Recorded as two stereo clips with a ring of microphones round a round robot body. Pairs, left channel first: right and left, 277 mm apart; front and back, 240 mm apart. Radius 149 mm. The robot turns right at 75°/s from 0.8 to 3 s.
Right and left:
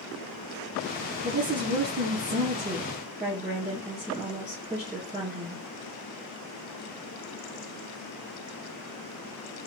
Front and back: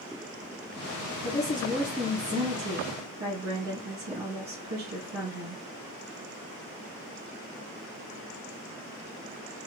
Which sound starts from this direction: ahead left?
A woman speaking, at 1.2 s.